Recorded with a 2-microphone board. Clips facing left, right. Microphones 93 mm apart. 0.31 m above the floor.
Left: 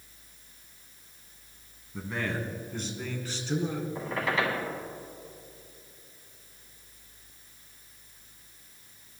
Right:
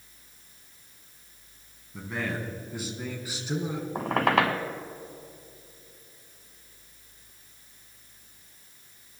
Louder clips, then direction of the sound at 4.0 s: Right 8 dB; 70° right (ahead or behind).